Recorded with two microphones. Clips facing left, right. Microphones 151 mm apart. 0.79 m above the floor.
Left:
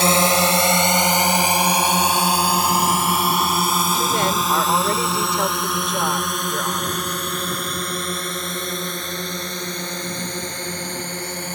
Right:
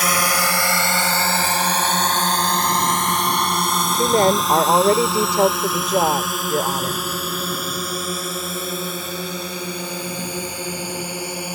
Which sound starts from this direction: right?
A woman speaking, at 3.9 s.